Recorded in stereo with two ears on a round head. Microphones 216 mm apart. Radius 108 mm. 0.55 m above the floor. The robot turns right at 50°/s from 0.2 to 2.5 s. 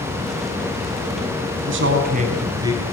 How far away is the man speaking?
About 5 m.